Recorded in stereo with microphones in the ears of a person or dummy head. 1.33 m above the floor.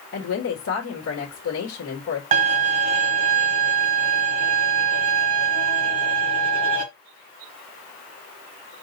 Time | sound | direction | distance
0.1 | a woman speaking | 80° left | 1.6 m
2.3 | a violin | 40° right (ahead or behind) | 1.4 m